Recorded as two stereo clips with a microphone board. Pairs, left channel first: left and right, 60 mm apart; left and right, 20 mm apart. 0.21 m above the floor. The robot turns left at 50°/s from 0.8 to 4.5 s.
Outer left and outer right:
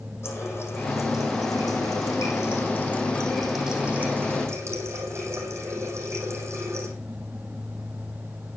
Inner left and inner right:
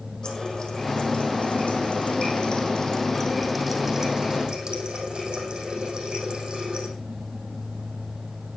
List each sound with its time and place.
0.2 s a running tap: 135° left, 6 m; by 6.9 s 50° right, 6 m